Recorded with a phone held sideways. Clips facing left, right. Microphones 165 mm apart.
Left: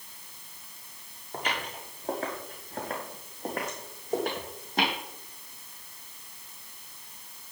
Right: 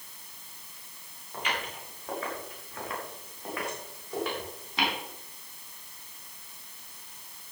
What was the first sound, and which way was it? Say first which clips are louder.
Footsteps: left 1 dB; 40° left (ahead or behind).